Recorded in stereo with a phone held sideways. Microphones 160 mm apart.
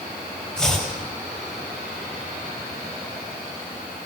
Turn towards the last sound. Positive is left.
turn(degrees=5)  # may be behind; listen again after turning